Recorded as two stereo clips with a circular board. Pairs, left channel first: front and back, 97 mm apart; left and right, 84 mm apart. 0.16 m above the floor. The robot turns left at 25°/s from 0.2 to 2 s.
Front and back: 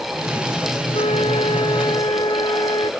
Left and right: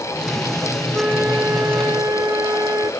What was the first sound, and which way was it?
A flute, 10° right.